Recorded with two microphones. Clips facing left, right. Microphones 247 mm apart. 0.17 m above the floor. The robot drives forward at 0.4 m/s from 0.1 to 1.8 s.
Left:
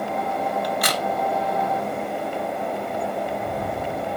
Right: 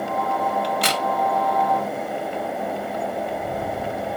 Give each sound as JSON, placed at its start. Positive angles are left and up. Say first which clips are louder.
{"t": 0.6, "sound": "a crack", "louder": "right 1 dB", "side_deg": -25, "distance_m": 1.0}